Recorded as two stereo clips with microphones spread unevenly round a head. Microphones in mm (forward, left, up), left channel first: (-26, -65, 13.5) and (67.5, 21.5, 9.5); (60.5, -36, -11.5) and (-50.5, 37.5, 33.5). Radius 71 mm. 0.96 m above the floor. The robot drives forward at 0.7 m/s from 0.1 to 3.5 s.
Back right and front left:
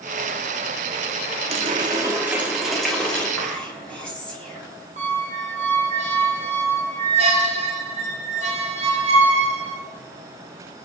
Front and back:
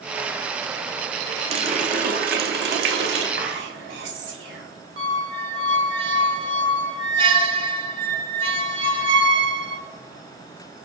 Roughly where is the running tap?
Left.